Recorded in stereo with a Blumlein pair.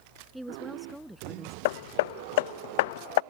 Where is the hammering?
50° left.